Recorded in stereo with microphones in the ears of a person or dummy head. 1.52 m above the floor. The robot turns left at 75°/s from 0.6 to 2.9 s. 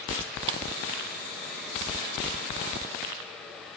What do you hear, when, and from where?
0.5 s a clap: 25° right (ahead or behind), 0.6 m